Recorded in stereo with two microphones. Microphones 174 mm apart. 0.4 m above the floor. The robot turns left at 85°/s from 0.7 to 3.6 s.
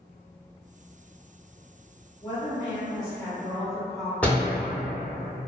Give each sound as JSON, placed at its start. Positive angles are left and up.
{"t": 2.2, "sound": "a woman speaking", "side_deg": 25, "distance_m": 0.9}
{"t": 4.2, "sound": "a door slam", "side_deg": 10, "distance_m": 0.5}